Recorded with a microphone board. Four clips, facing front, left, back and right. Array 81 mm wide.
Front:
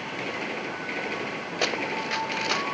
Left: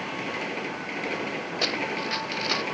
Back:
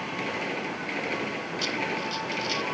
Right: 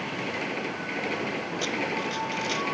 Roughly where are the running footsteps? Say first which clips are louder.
Left 1 dB, front 3 dB; ahead.